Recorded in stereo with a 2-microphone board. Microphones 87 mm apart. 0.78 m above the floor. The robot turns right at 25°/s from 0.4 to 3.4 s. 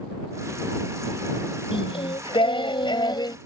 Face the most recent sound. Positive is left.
turn(degrees=130)